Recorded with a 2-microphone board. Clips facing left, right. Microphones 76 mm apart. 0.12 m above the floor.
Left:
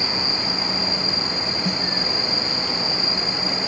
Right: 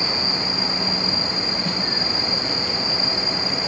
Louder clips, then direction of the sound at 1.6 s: Left 2 dB; 15° left (ahead or behind).